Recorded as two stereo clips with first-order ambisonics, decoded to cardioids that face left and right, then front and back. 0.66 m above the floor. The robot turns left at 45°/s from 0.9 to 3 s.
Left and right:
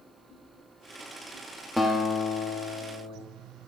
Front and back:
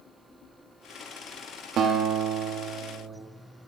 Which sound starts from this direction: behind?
A guitar, at 1.8 s.